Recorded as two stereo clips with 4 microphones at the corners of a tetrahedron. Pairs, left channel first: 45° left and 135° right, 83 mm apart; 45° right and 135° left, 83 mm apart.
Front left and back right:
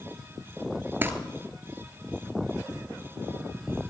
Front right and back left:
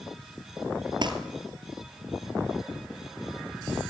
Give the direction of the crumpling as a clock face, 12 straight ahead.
7 o'clock.